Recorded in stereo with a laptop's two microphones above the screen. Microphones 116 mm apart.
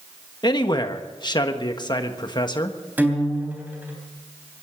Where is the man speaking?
40° left (ahead or behind), 1.3 m.